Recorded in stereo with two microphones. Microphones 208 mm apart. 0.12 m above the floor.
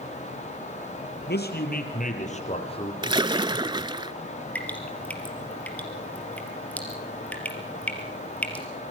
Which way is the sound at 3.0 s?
25° right (ahead or behind).